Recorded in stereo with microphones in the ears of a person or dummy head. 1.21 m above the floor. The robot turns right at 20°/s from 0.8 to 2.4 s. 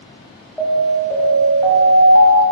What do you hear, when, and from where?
0.6 s an alarm: 175° left, 0.9 m; by 2.4 s 155° right, 0.9 m